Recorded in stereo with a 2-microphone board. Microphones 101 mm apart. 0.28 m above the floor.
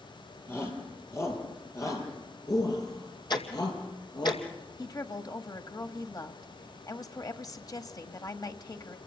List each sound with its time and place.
0.5 s a shout: 25° left (ahead or behind), 7.5 m; by 4.3 s 45° left (ahead or behind), 8 m
3.3 s ticking: 45° left (ahead or behind), 2 m
4.8 s a woman speaking: 40° left (ahead or behind), 1.5 m